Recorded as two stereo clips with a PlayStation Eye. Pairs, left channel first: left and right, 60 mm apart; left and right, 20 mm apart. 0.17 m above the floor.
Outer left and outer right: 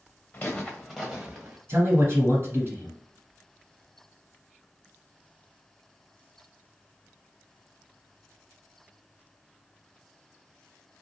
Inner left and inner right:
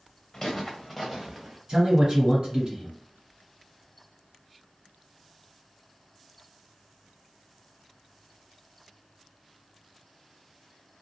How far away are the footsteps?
About 0.8 m.